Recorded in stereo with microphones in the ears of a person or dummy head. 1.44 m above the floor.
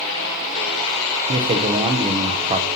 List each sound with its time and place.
1.3 s a man speaking: 30° right (ahead or behind), 0.8 m